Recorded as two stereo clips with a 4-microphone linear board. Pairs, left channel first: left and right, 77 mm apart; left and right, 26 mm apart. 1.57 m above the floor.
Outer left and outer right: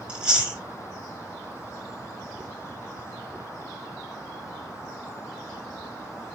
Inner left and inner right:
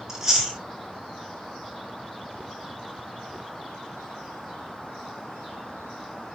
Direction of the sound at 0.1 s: 15° right (ahead or behind).